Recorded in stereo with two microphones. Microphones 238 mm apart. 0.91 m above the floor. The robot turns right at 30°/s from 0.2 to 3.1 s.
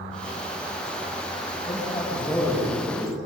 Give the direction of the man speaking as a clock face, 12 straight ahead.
7 o'clock.